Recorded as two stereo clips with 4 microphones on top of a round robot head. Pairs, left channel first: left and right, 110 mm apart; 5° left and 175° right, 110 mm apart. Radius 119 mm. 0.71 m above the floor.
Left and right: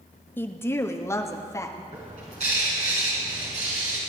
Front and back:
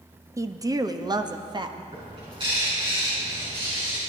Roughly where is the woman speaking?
Behind left.